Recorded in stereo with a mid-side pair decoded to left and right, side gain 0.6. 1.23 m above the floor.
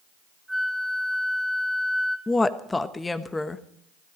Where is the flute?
Straight ahead, 3 m.